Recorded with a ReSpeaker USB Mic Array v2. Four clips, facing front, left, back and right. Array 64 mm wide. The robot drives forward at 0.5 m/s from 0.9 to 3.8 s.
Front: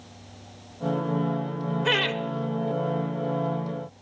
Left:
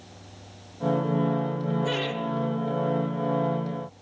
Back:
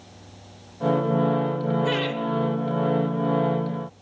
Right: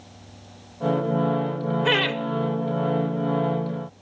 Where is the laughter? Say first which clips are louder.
Right 6 dB, even; 65° right, 1.0 m; by 2.2 s 75° right, 0.9 m.